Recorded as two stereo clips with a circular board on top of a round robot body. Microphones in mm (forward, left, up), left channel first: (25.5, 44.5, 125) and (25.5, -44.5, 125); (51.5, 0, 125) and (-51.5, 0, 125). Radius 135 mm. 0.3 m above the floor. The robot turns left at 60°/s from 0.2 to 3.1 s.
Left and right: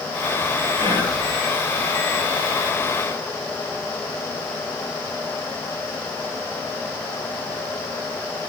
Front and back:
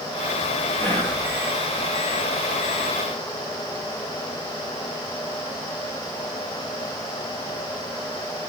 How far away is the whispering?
About 8.5 m.